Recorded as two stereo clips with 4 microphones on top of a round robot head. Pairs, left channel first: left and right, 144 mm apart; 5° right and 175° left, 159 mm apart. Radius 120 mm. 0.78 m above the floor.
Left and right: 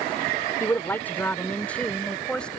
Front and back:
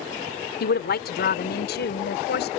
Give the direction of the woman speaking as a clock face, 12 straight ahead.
12 o'clock.